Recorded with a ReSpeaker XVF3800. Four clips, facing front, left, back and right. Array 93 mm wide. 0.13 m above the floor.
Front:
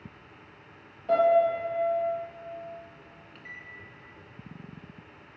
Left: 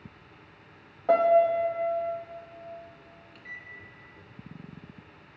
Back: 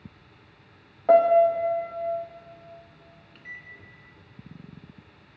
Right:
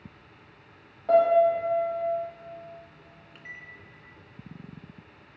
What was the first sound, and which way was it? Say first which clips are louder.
A piano: right 1 dB, back 4 dB; 160° left.